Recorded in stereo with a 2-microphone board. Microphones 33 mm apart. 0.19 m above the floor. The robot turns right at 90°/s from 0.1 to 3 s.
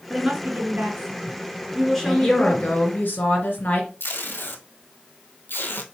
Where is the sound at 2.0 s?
10° left, 2.5 m; by 3.9 s 95° left, 2.5 m.